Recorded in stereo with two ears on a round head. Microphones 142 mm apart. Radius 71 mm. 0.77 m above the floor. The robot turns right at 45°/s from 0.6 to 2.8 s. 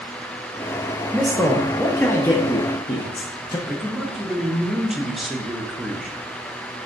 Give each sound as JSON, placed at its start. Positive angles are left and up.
{"t": 1.1, "sound": "a man speaking", "side_deg": -5, "distance_m": 0.5}
{"t": 3.7, "sound": "a man speaking", "side_deg": 0, "distance_m": 0.6}